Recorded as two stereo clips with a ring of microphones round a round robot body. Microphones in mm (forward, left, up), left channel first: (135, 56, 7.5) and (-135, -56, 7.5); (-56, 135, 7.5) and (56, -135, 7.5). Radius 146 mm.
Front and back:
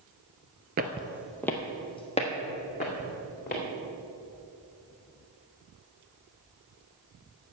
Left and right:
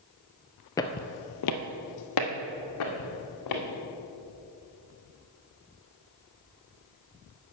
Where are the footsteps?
Straight behind, 0.6 m; by 3.6 s 85° left, 2.5 m.